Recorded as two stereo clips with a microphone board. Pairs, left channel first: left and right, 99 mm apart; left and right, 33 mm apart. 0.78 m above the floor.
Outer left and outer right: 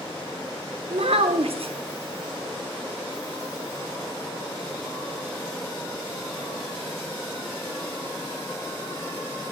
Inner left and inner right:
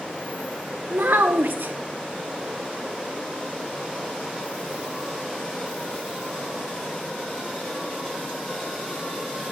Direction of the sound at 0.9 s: 75° right (ahead or behind).